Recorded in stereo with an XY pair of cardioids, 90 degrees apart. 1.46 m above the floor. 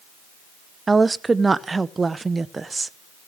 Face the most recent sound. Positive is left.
turn(degrees=-25)